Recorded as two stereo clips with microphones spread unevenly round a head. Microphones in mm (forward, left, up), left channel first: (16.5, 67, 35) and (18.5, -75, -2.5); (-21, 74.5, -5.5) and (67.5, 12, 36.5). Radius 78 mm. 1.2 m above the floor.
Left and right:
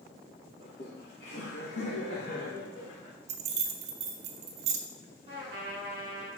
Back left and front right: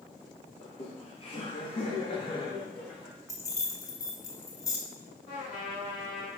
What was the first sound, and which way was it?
Laughter, 130° left.